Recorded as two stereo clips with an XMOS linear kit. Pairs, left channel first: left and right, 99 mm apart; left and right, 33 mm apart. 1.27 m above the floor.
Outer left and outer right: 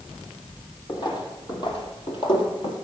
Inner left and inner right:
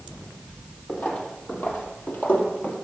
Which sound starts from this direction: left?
Footsteps, at 0.9 s.